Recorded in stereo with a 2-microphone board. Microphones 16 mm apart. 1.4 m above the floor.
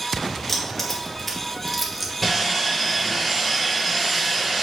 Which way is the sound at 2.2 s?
Centre (ahead or behind).